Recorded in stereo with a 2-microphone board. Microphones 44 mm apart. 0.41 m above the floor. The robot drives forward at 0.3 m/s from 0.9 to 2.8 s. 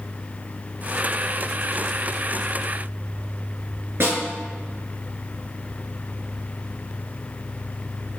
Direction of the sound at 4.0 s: 55° right (ahead or behind).